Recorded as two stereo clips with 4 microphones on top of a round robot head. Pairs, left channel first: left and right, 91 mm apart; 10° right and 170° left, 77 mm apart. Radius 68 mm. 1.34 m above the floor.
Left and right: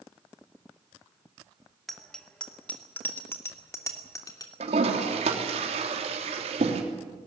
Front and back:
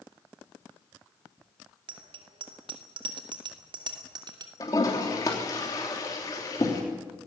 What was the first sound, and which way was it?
A bicycle bell, straight behind.